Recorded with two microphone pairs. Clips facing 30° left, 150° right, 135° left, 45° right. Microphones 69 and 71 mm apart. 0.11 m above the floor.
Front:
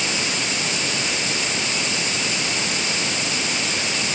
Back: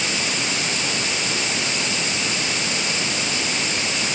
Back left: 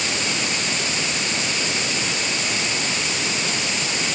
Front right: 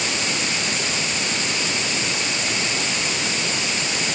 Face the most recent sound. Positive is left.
No sound to turn to.